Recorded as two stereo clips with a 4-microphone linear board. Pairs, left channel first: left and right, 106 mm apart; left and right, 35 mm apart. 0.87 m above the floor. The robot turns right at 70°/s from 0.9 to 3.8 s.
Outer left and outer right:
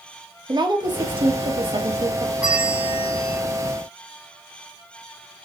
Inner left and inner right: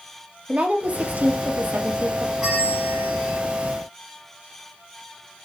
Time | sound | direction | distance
0.5 | a woman speaking | 125° right | 1.1 m
2.4 | a bell | 165° right | 2.5 m